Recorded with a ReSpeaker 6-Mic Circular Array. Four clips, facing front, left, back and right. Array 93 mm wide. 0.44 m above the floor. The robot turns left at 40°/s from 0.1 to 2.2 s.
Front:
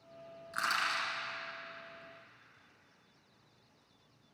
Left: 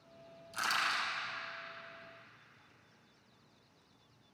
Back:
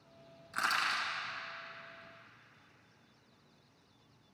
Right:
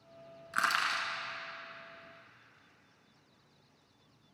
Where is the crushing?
85° right, 1.7 m; by 1.1 s 110° right, 1.7 m.